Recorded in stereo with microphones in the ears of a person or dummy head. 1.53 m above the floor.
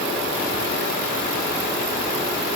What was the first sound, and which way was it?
Only background noise.